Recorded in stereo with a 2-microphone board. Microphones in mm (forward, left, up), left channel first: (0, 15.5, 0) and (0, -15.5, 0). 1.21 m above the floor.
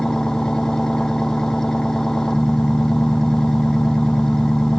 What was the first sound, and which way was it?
An engine running, 20° left (ahead or behind).